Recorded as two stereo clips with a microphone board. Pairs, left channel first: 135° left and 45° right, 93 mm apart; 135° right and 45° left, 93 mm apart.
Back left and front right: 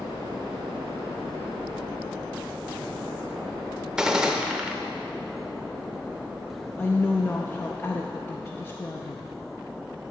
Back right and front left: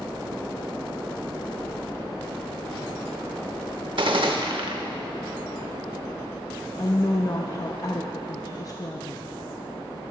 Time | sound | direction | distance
4.0 | a gunshot | 35° left | 0.7 m
6.8 | a woman speaking | 165° right | 0.5 m